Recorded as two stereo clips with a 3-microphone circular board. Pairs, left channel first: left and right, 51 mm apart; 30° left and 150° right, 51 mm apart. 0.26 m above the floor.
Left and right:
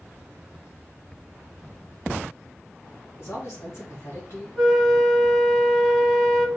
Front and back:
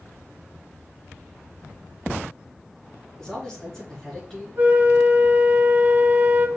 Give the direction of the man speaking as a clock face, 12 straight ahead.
8 o'clock.